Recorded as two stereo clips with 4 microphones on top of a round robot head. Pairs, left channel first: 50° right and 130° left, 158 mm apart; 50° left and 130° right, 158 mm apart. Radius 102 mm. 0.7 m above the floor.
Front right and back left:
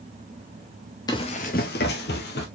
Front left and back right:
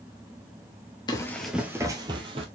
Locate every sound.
1.1 s running footsteps: straight ahead, 0.7 m; by 2.5 s 75° right, 1.3 m